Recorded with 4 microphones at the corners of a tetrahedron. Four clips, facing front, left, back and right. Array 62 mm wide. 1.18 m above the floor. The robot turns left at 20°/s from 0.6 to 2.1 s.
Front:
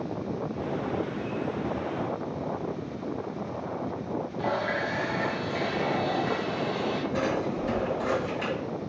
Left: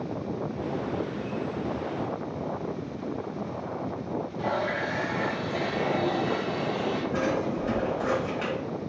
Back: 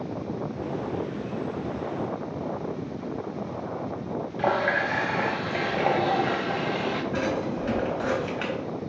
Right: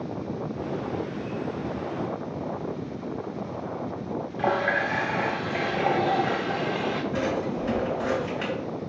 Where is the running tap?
150° right, 1.3 m.